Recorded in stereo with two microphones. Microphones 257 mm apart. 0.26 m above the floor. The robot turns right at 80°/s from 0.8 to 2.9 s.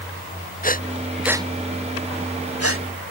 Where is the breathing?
35° left (ahead or behind); by 2.9 s 50° right (ahead or behind).